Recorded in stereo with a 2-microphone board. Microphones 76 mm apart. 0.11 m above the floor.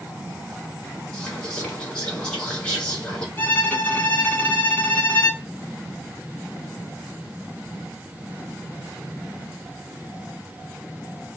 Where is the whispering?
10° left (ahead or behind), 1.3 m.